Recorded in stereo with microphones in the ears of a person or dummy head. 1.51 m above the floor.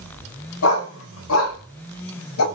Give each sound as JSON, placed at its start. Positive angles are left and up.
{"t": 0.6, "sound": "a dog barking", "side_deg": 70, "distance_m": 5.5}